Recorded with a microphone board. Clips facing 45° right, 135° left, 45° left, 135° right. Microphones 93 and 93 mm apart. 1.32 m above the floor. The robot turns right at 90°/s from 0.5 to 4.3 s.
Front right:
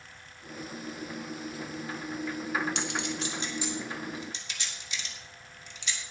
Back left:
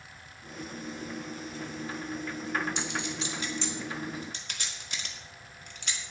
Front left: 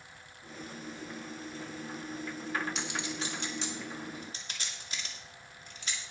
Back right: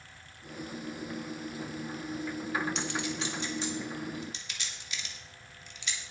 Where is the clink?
45° right, 2.5 m; by 6.0 s 95° left, 2.5 m.